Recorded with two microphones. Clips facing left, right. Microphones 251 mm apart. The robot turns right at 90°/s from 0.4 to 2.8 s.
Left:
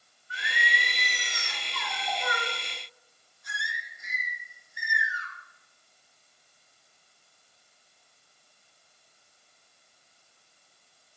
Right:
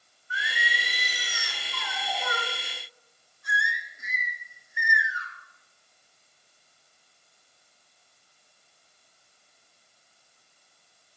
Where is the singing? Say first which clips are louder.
Even; 50° left, 4 m; by 5.3 s 95° right, 4 m.